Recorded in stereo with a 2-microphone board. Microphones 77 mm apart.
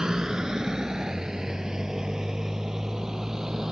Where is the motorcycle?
10° right (ahead or behind); by 3.7 s 5° right (ahead or behind).